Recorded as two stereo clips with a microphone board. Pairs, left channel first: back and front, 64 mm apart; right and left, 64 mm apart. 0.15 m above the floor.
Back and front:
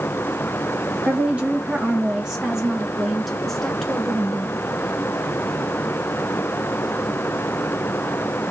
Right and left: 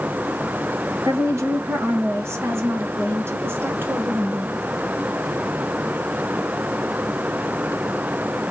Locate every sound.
1.1 s a woman speaking: 65° left, 2.5 m; by 4.5 s 125° left, 1.6 m